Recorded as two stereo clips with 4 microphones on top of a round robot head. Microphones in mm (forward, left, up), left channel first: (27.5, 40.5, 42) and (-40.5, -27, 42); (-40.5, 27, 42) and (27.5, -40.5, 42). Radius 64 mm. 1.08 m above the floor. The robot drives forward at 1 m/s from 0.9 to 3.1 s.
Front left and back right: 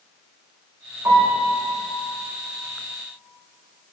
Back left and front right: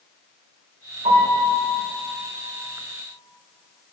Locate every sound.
1.1 s a piano: 70° right, 3 m; by 1.4 s 75° right, 3 m